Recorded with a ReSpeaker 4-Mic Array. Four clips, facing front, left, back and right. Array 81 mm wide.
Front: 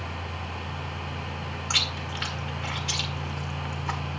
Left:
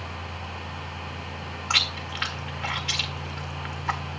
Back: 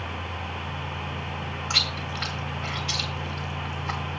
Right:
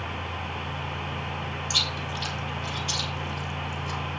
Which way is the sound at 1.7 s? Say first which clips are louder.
Left 1 dB, even; 80° left.